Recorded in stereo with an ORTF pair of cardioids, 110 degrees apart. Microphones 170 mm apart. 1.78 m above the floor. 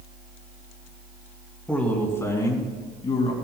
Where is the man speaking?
5° left, 3 m; by 3.3 s 40° left, 2.5 m.